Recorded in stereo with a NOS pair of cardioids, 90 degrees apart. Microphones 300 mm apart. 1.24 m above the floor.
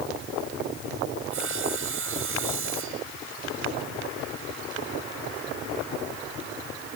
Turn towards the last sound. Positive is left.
turn(degrees=-45)